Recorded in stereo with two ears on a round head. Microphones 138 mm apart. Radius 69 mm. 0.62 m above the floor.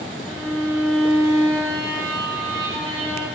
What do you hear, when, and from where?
0.2 s a violin: 5° right (ahead or behind), 1.3 m